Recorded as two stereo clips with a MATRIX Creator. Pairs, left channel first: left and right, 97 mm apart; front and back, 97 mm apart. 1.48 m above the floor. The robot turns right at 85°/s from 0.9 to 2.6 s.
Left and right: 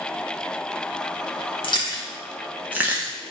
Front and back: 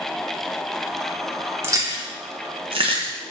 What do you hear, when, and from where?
1.6 s chewing: 115° left, 1.1 m; by 3.3 s 160° right, 1.1 m